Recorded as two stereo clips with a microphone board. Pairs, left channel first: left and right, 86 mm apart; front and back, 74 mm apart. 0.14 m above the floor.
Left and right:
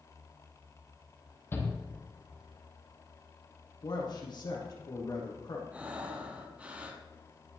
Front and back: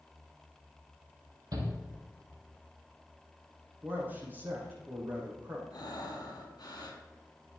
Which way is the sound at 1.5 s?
155° left.